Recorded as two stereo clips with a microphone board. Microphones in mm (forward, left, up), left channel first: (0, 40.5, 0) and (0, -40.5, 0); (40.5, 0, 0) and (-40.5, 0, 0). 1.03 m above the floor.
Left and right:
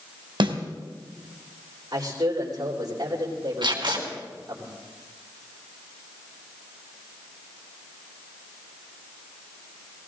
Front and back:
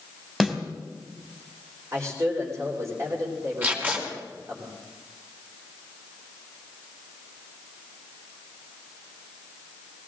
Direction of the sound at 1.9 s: 130° right.